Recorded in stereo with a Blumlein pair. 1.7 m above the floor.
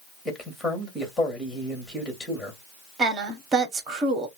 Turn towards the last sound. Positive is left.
turn(degrees=-25)